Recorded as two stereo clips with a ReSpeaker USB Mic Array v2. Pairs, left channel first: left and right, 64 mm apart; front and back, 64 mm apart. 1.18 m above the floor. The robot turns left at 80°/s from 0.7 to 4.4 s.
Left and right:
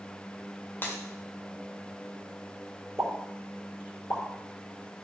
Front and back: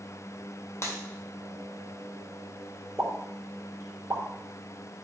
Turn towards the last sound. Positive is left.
turn(degrees=115)